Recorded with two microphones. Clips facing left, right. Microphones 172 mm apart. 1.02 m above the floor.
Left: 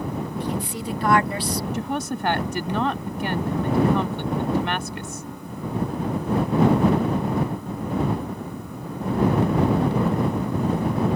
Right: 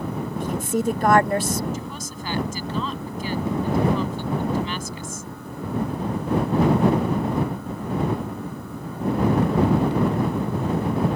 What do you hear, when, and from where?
0.4 s a woman speaking: 45° right (ahead or behind)
1.7 s a woman speaking: 65° left (ahead or behind)